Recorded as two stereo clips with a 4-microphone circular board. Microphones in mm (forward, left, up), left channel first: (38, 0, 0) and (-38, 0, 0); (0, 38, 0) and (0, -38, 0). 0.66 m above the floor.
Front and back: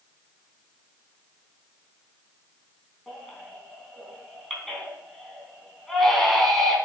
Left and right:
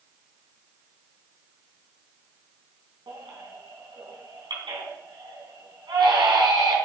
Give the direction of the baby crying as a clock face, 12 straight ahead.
3 o'clock.